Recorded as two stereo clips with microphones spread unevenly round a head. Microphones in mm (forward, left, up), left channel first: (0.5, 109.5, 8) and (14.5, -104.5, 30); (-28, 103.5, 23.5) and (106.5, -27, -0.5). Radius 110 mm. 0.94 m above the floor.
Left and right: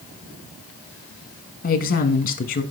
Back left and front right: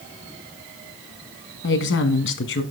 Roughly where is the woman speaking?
Behind left.